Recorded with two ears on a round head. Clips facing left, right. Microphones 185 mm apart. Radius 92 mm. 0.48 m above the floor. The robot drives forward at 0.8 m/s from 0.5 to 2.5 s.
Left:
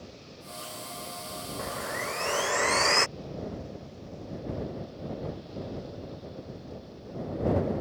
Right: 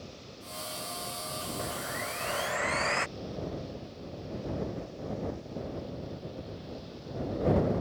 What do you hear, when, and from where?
1.6 s sawing: 50° left (ahead or behind); by 3.1 s 55° left (ahead or behind)